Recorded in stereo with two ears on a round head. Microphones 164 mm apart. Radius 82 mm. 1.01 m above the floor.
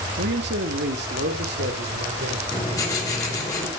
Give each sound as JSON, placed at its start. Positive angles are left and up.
{"t": 0.2, "sound": "a man speaking", "side_deg": -65, "distance_m": 1.4}
{"t": 2.5, "sound": "writing", "side_deg": 20, "distance_m": 5.0}